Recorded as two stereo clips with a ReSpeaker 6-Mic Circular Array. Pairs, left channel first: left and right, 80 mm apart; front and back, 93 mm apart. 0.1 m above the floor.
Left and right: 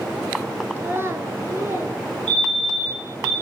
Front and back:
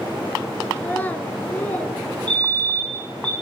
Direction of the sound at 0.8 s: 60° right.